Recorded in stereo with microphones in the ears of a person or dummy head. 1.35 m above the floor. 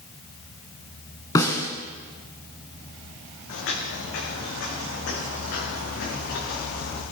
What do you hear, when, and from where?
1.4 s a snare drum: 15° left (ahead or behind), 2 m
3.5 s footsteps: 65° left (ahead or behind), 5 m; by 7.0 s 60° left (ahead or behind), 7 m